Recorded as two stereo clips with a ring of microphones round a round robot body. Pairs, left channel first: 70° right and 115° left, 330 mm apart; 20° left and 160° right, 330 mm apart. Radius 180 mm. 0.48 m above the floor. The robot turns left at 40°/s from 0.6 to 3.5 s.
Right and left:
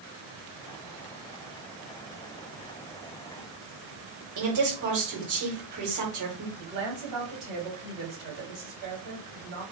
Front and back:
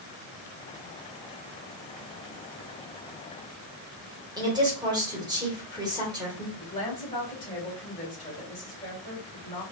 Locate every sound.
4.4 s a woman speaking: 125° left, 1.9 m
6.5 s a woman speaking: 100° left, 2.5 m